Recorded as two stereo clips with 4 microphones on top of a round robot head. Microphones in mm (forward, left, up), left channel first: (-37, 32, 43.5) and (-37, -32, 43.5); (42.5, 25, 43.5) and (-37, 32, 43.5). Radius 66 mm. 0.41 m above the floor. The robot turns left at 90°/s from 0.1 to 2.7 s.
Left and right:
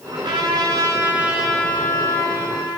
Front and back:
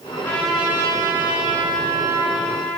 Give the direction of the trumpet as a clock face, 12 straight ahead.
2 o'clock.